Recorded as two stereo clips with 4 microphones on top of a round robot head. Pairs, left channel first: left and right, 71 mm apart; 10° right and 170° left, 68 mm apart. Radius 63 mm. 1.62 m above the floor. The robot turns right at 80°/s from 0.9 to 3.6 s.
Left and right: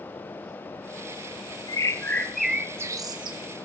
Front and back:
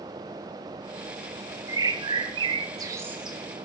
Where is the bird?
125° left, 0.8 m; by 3.4 s 100° right, 0.8 m.